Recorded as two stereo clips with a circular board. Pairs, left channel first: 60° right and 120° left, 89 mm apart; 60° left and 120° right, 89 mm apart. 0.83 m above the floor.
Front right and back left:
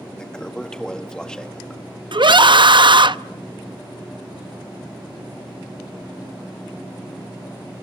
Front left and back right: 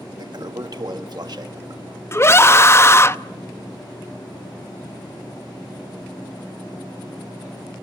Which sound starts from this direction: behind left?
A scream, at 2.1 s.